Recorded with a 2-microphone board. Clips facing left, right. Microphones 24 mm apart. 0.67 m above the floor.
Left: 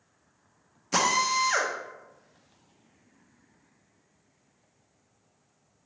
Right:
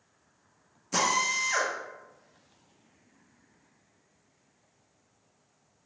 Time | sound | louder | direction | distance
0.9 | a drill | left 2 dB | 30° left (ahead or behind) | 0.6 m